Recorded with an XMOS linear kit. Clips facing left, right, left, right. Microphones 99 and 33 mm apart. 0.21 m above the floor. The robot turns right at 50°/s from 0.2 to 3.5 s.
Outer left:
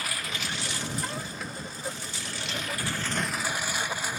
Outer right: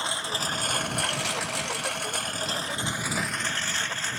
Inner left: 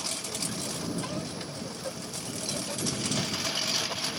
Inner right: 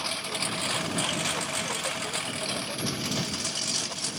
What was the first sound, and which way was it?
A lawn mower, 155° right.